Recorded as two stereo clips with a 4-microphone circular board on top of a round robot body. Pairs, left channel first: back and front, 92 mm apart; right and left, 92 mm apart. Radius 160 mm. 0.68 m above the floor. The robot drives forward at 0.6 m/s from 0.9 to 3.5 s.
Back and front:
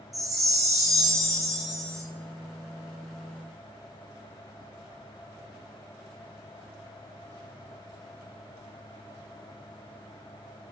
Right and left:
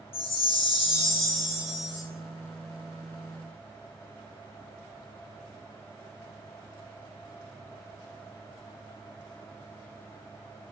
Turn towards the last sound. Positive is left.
turn(degrees=-110)